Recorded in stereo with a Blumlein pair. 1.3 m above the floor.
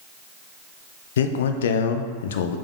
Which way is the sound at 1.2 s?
60° left.